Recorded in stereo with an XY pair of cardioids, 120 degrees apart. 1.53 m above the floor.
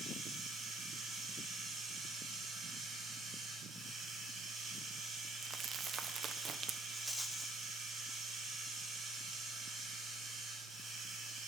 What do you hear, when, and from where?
0.0 s running water: 40° right, 9.5 m
5.4 s crumpling: 45° right, 1.2 m
6.9 s a rattle: 5° left, 1.1 m